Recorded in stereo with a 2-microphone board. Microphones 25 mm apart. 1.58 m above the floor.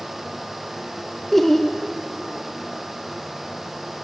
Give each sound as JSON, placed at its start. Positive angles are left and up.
{"t": 1.3, "sound": "laughter", "side_deg": 10, "distance_m": 0.6}